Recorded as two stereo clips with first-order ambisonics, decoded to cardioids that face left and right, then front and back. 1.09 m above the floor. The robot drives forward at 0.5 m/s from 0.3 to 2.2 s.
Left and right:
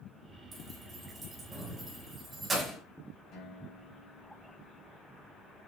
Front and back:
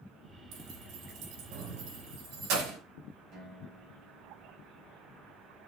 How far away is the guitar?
About 6 m.